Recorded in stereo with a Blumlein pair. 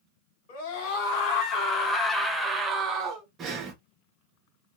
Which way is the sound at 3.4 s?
25° right.